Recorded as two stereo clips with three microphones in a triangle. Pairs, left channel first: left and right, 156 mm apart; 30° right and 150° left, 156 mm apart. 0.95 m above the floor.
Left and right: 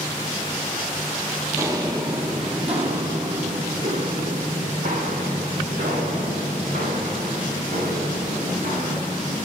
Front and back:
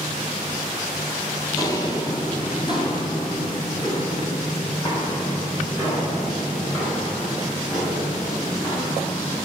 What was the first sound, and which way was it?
Footsteps, 50° right.